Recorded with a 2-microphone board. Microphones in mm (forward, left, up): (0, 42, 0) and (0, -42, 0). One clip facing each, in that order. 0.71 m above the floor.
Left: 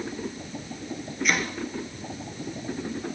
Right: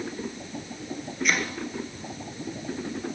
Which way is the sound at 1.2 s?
Centre (ahead or behind).